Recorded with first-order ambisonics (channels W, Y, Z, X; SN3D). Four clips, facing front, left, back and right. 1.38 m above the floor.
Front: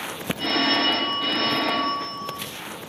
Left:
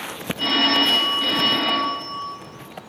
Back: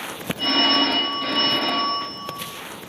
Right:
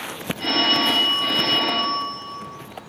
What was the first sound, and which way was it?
A phone ringing, 95° left.